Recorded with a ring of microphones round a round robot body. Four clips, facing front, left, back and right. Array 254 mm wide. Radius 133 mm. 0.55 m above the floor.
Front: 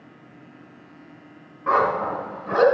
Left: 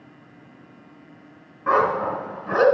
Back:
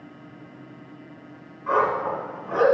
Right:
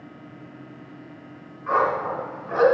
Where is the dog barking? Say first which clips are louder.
Left 2 dB, front 2 dB; 55° left, 2.5 m.